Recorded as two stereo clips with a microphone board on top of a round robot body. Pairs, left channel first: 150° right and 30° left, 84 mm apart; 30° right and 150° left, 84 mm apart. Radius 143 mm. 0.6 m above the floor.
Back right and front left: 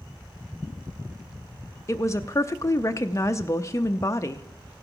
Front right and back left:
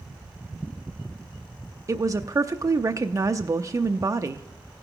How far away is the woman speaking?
About 0.6 m.